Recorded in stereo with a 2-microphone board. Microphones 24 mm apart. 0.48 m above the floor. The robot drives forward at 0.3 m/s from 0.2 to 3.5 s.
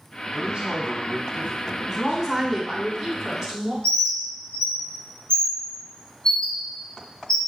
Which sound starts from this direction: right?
A man speaking, at 0.3 s.